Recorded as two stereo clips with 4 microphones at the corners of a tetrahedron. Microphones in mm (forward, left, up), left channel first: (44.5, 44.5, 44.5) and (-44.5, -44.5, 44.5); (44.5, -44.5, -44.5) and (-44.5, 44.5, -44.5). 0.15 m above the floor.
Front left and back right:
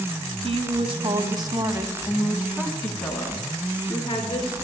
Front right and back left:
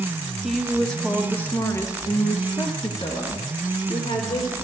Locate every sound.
0.4 s a woman speaking: 135° right, 1.5 m; by 4.5 s 10° right, 2 m